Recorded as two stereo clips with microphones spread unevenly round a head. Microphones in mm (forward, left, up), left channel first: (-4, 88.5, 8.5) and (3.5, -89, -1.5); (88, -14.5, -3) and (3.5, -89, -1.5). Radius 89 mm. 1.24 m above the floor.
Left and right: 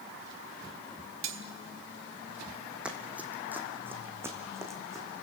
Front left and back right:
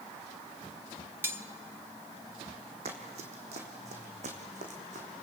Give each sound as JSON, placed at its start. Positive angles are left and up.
{"t": 1.2, "sound": "cutlery clinking", "azimuth_deg": -70, "distance_m": 1.4}
{"t": 2.9, "sound": "running footsteps", "azimuth_deg": -175, "distance_m": 2.5}